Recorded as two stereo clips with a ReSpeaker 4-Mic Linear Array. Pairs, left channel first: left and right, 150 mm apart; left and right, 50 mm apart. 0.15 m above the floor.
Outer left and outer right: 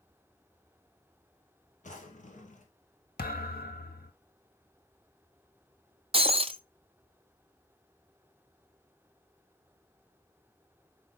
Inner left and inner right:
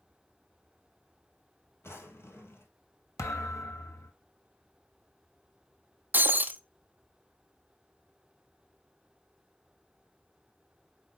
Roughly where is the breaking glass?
Right.